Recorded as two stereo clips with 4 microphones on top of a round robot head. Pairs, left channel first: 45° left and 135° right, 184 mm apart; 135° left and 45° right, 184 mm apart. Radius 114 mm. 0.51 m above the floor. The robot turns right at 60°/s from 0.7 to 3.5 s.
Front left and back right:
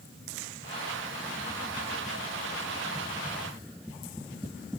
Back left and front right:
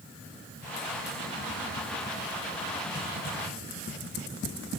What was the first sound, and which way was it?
Only background noise.